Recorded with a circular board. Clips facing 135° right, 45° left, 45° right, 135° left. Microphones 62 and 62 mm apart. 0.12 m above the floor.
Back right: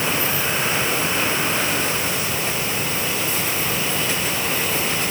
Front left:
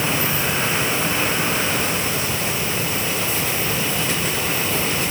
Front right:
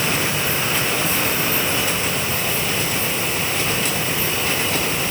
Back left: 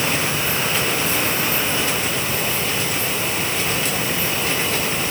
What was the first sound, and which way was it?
Only background noise.